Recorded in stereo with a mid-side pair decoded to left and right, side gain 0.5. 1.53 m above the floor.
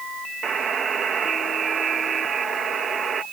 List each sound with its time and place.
0.4 s a buzzer: 50° right